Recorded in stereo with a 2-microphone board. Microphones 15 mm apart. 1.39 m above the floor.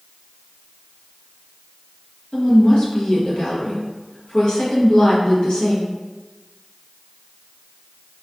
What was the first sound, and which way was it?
A woman speaking, 70° left (ahead or behind).